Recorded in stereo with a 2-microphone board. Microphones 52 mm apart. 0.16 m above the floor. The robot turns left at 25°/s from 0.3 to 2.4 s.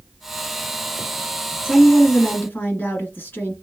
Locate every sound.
1.6 s a woman speaking: 45° left (ahead or behind), 1.5 m; by 3.5 s 40° left (ahead or behind), 1.5 m